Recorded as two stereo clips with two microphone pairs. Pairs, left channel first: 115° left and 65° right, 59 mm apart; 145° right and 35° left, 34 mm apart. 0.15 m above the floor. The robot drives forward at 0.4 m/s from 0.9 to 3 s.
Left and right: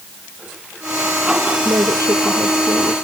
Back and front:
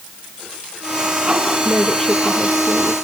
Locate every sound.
1.6 s a woman speaking: 45° right, 2 m; by 2.9 s 55° right, 1.9 m